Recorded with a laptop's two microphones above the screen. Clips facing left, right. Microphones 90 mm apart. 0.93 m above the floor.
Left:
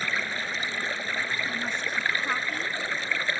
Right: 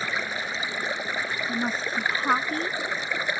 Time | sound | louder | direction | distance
0.0 | running water | right 1 dB | 15° right (ahead or behind) | ?
1.5 | a woman speaking | right 3 dB | 40° right (ahead or behind) | ?